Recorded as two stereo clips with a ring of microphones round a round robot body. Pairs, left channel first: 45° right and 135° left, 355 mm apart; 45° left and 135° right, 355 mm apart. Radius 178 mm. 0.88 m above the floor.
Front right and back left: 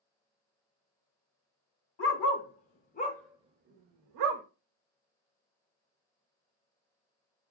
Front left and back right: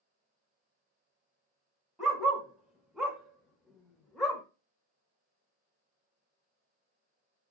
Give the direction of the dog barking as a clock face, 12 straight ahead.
2 o'clock.